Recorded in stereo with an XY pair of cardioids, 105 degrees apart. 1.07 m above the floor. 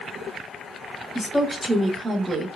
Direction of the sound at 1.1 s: 15° left.